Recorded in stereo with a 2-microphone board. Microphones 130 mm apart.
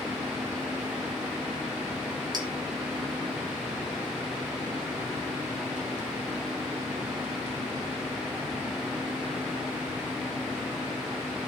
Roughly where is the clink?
Right.